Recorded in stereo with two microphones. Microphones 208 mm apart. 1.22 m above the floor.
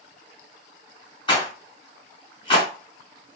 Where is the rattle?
25° left (ahead or behind), 1.1 m.